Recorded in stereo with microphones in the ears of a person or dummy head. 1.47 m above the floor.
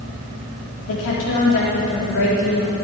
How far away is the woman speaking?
About 4 m.